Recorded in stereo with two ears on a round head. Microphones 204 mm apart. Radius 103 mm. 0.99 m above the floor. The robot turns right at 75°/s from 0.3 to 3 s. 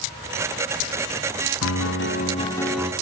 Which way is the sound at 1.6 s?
95° left.